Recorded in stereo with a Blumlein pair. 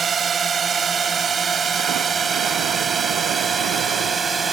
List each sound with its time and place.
0.0 s a drone: 20° right; by 4.5 s 15° right